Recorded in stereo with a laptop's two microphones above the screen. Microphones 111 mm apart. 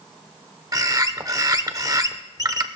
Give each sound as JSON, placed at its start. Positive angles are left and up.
{"t": 0.7, "sound": "a bird", "side_deg": -35, "distance_m": 0.8}